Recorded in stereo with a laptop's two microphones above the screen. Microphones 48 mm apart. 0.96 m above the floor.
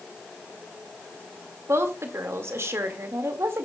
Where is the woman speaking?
60° right (ahead or behind), 1.9 m.